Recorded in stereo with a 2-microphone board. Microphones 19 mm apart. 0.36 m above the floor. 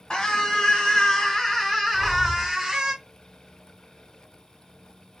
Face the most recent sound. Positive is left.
turn(degrees=-50)  # may be behind; listen again after turning